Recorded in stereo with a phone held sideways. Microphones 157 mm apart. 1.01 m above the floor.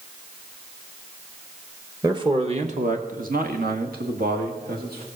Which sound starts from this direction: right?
A man speaking, at 2.0 s.